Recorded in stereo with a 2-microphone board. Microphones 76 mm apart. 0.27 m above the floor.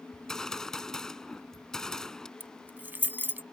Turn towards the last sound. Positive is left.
turn(degrees=-25)  # may be behind; listen again after turning